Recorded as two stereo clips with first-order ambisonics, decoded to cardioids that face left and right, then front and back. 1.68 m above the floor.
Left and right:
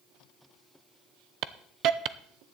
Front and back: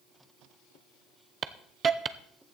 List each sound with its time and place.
1.4 s a hiss: 120° right, 0.6 m